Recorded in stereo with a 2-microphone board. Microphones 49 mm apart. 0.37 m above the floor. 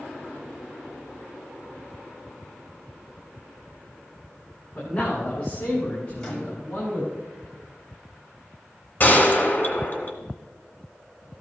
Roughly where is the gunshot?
Left.